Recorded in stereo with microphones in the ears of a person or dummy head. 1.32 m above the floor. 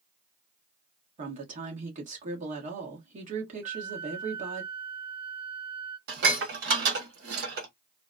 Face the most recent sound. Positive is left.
turn(degrees=-65)  # may be behind; listen again after turning